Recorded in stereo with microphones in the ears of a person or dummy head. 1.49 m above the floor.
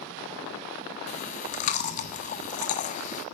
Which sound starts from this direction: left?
Chewing, at 1.1 s.